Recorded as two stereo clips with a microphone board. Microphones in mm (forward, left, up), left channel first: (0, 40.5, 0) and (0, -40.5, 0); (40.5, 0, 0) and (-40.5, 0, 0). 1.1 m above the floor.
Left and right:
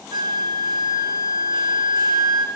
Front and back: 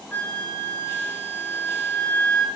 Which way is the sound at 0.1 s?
70° right.